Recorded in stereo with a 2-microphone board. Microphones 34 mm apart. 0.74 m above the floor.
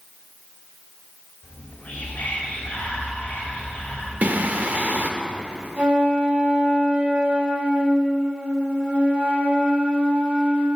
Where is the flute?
35° right (ahead or behind), 2.5 m.